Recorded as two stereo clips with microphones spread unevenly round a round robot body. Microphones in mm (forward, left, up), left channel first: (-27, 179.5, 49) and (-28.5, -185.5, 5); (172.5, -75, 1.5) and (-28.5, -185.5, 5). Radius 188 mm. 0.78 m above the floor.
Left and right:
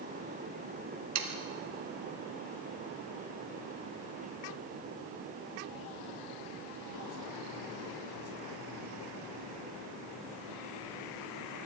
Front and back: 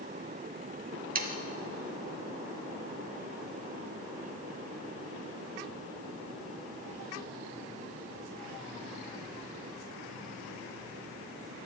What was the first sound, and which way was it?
Sawing, 125° right.